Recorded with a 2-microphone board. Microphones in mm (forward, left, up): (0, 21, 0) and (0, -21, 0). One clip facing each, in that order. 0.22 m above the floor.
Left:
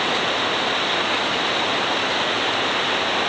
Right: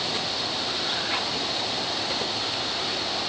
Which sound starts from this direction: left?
Running water, at 0.0 s.